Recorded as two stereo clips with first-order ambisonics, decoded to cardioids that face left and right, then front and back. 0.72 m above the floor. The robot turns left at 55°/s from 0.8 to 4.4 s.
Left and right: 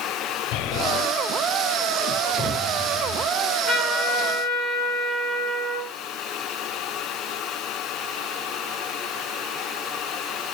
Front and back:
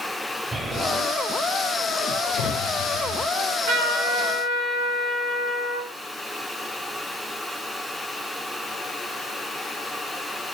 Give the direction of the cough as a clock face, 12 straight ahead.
No cough in this recording.